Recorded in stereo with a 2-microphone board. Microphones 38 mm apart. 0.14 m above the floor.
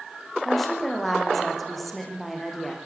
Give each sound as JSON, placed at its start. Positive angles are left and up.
{"t": 0.5, "sound": "a woman speaking", "side_deg": 5, "distance_m": 7.5}